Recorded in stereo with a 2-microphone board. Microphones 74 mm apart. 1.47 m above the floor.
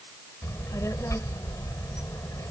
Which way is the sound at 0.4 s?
40° left (ahead or behind).